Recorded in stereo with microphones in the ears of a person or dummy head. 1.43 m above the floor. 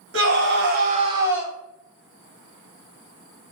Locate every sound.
0.1 s a scream: 80° right, 1.1 m; by 1.5 s centre (ahead or behind), 0.8 m